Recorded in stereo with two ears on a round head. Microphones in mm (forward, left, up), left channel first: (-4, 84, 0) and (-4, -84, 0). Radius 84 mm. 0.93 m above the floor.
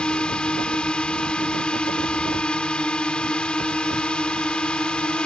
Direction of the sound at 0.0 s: 5° left (ahead or behind).